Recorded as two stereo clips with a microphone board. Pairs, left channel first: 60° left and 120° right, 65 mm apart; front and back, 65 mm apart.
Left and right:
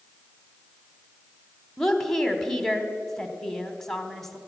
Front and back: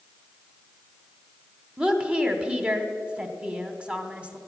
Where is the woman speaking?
135° left, 1.1 m.